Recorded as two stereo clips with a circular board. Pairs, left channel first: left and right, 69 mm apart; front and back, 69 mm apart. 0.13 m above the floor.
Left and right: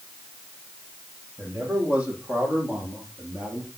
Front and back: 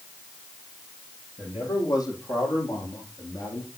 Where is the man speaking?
25° right, 6.5 m; by 3.7 s 15° right, 5 m.